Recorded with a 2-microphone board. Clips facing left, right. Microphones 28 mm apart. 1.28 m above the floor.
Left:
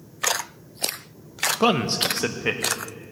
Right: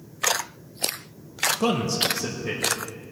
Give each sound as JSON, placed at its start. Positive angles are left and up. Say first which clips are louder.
{"t": 1.6, "sound": "a man speaking", "louder": "left 5 dB", "side_deg": 30, "distance_m": 0.8}